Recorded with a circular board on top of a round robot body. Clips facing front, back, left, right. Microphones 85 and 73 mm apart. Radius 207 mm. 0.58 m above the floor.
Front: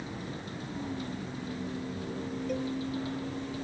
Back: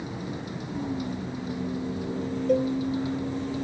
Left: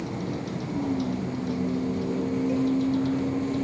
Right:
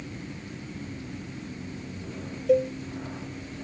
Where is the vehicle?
105° left; by 3.6 s 110° left.